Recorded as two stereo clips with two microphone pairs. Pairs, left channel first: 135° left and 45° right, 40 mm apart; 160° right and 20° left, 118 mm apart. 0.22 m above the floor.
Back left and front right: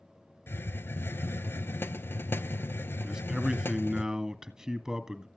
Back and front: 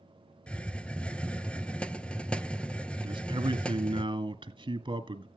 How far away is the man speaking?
About 2.0 m.